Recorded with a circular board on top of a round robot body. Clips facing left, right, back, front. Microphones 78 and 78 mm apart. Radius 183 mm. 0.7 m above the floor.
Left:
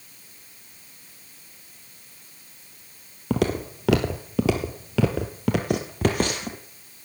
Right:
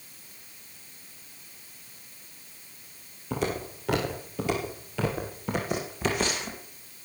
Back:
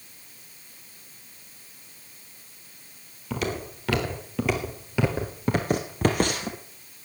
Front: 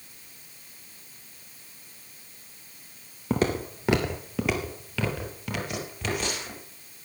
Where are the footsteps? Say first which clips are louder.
Left 6 dB, front 4 dB; 55° left, 1.3 m; by 6.6 s 140° left, 1.6 m.